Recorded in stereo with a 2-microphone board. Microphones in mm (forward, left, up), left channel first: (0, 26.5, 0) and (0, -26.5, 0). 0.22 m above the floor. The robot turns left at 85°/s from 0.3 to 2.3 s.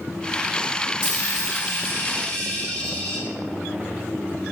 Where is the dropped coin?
125° left, 2.0 m; by 3.2 s 15° left, 2.0 m.